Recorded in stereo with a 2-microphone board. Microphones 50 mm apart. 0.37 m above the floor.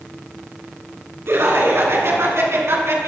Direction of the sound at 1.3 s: 55° right (ahead or behind).